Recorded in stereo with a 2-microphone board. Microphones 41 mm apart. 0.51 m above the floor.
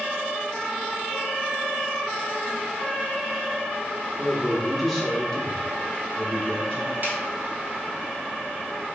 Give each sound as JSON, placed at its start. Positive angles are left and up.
{"t": 4.2, "sound": "a man speaking", "side_deg": -10, "distance_m": 1.0}
{"t": 7.0, "sound": "a snare drum", "side_deg": -45, "distance_m": 0.9}